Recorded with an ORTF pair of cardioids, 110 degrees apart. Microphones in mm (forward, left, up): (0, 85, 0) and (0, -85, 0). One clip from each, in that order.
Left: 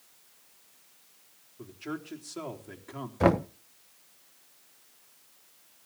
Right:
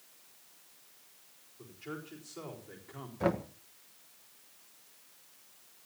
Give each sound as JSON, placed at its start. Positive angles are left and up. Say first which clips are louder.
{"t": 1.6, "sound": "a man speaking", "louder": "left 5 dB", "azimuth_deg": 65, "distance_m": 4.0}
{"t": 3.2, "sound": "knocking", "louder": "left 8 dB", "azimuth_deg": 45, "distance_m": 0.8}